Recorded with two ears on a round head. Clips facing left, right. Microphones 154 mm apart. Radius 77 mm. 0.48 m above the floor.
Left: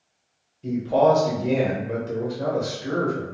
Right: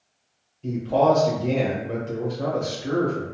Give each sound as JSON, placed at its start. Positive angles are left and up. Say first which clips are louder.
{"t": 0.6, "sound": "a man speaking", "louder": "left 1 dB", "side_deg": 5, "distance_m": 0.7}